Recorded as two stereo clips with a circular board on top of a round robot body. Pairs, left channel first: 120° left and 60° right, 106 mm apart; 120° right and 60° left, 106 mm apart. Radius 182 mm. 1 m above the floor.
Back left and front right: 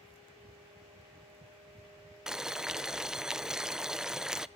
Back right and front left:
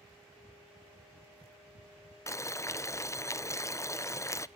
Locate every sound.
2.3 s boiling: 140° right, 0.6 m